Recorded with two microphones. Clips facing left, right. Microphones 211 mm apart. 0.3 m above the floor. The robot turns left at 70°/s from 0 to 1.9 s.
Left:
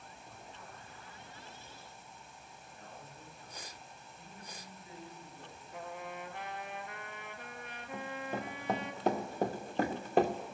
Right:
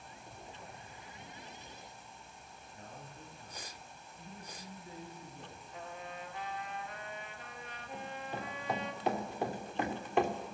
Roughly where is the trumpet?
Left.